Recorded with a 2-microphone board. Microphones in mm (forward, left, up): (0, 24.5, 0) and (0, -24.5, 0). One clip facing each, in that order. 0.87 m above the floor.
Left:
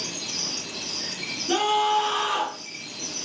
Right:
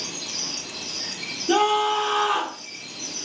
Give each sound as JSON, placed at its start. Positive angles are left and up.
{"t": 1.5, "sound": "a scream", "side_deg": -15, "distance_m": 1.6}